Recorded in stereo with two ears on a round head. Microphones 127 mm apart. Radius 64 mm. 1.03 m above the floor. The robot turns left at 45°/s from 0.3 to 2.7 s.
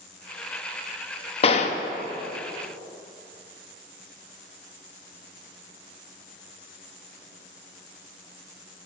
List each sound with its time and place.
1.4 s a gunshot: 45° left (ahead or behind), 0.6 m; by 1.8 s 55° left (ahead or behind), 0.6 m